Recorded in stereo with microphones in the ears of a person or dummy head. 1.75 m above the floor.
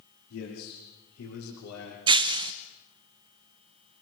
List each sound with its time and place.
0.3 s a man speaking: 85° left, 5.5 m; by 2.0 s 90° left, 6.5 m
2.1 s breaking glass: 25° right (ahead or behind), 0.9 m